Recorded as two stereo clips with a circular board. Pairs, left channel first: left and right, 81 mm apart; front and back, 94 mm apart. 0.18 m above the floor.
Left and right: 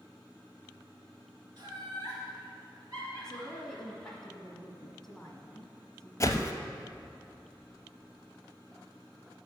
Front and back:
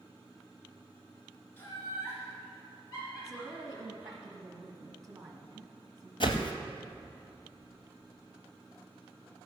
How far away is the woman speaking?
About 1.3 m.